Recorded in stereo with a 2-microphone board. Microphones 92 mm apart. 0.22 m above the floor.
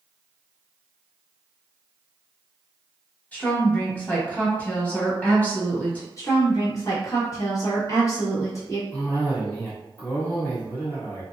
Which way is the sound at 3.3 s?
20° left (ahead or behind).